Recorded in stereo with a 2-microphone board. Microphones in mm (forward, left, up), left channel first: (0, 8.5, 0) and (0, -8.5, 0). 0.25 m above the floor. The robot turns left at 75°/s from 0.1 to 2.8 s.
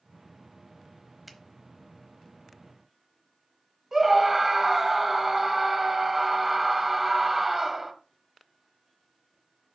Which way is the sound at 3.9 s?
20° right (ahead or behind).